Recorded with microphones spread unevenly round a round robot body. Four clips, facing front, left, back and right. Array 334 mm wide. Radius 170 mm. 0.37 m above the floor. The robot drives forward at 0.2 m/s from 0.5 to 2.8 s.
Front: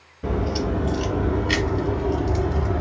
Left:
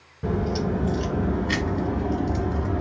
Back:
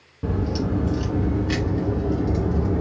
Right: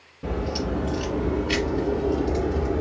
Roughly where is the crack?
Behind.